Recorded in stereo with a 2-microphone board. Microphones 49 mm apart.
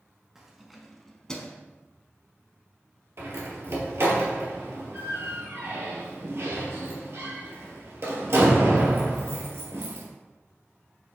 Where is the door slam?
60° right (ahead or behind), 1.9 m.